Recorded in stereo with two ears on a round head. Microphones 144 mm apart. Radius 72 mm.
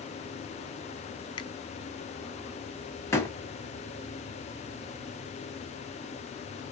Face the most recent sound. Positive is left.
turn(degrees=20)  # may be behind; listen again after turning